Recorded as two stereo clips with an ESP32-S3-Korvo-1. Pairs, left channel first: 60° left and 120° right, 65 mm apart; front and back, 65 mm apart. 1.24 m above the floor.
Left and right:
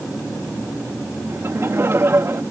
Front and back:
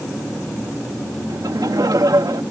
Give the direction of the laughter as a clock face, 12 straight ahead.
6 o'clock.